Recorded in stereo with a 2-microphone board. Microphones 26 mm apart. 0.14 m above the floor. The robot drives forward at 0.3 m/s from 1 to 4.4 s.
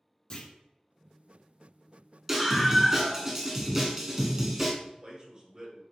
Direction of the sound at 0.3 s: 35° left (ahead or behind).